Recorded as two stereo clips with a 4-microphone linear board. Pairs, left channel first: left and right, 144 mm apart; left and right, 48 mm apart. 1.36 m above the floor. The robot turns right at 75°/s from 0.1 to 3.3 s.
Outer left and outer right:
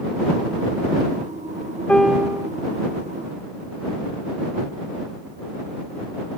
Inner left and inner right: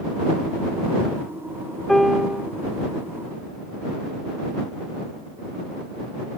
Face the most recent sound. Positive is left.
turn(degrees=-85)